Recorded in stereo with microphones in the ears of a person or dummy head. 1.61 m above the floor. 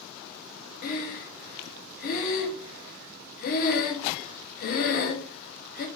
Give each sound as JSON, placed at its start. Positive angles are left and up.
{"t": 0.8, "sound": "breathing", "side_deg": 50, "distance_m": 0.8}